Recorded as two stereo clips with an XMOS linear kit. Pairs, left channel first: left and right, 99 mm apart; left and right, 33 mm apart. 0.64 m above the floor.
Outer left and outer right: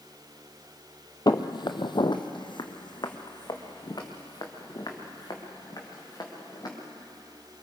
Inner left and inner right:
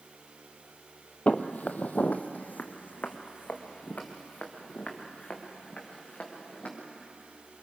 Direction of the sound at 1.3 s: 45° left (ahead or behind).